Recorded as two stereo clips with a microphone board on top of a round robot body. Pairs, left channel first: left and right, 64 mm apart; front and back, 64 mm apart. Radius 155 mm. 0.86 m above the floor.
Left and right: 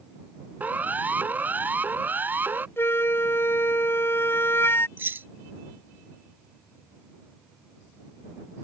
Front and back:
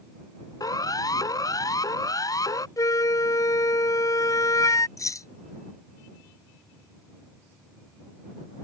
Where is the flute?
35° left.